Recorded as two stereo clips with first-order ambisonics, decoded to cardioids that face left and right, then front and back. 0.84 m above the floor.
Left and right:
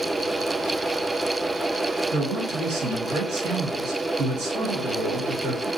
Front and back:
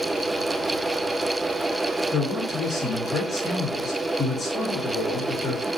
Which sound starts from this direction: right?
A man speaking, at 2.1 s.